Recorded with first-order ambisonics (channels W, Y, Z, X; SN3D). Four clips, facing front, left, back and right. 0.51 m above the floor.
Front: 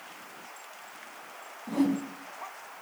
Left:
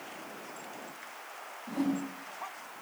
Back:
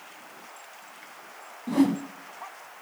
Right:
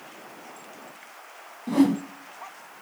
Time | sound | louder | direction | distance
1.7 | a whoosh | right 11 dB, back 4 dB | 120° right | 0.5 m